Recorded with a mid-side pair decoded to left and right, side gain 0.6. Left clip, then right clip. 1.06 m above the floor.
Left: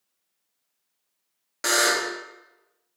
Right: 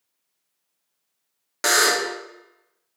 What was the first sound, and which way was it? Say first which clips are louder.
A buzzer: right 3 dB; 30° right.